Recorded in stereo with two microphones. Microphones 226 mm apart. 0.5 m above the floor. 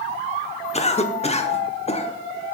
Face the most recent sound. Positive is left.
turn(degrees=30)  # may be behind; listen again after turning